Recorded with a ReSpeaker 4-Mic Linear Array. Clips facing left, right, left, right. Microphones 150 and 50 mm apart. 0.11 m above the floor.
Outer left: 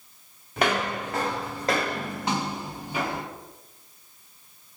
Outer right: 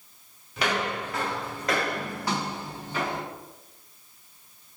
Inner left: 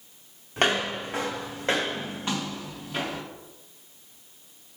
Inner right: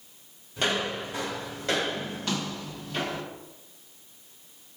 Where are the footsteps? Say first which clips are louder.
Outer left 3 dB, inner left 3 dB; 50° left (ahead or behind), 2.0 m; by 3.2 s 10° left (ahead or behind), 2.5 m.